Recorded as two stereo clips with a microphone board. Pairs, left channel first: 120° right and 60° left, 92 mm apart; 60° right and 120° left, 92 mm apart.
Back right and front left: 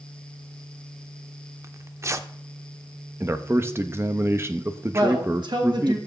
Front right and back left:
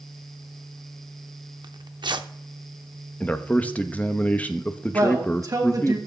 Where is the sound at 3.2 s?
10° left, 0.8 m.